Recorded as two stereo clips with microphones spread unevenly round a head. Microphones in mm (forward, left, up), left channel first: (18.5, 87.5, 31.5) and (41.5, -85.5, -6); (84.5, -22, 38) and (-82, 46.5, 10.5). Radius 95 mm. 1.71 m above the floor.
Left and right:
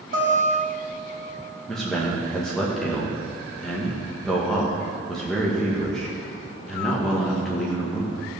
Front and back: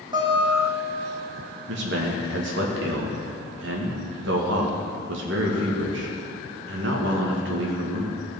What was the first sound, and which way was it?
A guitar, 135° right.